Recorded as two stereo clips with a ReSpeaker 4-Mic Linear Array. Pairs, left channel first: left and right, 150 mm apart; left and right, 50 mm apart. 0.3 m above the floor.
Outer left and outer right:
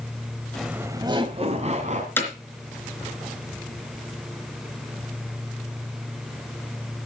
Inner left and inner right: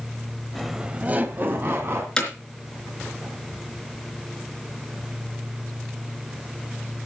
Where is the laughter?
5° left (ahead or behind), 1.0 m; by 2.1 s 55° right (ahead or behind), 2.5 m.